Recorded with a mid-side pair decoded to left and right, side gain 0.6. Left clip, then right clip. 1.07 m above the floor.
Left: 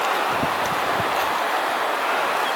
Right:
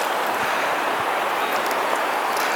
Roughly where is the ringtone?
No ringtone in this recording.